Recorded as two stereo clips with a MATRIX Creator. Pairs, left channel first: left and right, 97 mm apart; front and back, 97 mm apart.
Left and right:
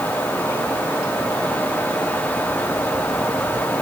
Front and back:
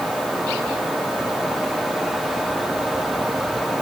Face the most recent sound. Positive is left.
No sound to turn to.